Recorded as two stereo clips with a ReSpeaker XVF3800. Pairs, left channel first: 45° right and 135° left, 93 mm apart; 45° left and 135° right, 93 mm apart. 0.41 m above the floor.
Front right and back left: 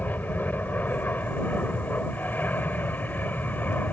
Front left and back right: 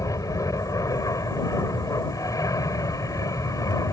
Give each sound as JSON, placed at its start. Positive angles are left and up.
{"t": 0.0, "sound": "an aircraft", "azimuth_deg": 20}